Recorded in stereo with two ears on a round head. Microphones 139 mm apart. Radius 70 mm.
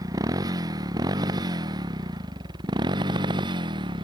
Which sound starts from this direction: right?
A motorcycle, at 0.0 s.